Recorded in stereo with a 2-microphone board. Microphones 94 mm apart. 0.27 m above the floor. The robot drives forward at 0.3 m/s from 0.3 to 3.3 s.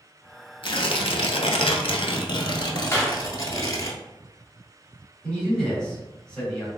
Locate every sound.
0.6 s tearing paper: 65° left (ahead or behind), 0.5 m; by 3.9 s 40° left (ahead or behind), 0.7 m
2.9 s a clap: 25° left (ahead or behind), 0.9 m
5.2 s a man speaking: 10° left (ahead or behind), 1.8 m